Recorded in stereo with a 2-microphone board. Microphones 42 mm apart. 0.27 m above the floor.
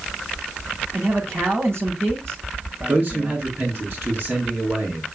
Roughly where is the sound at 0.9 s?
Right.